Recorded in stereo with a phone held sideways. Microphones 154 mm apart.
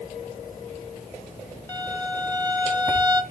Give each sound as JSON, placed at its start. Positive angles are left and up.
{"t": 1.7, "sound": "a violin", "side_deg": 15, "distance_m": 1.3}